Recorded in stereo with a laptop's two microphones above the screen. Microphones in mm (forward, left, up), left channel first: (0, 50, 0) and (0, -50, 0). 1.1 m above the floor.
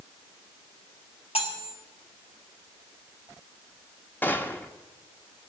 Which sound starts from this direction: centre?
A gunshot, at 4.2 s.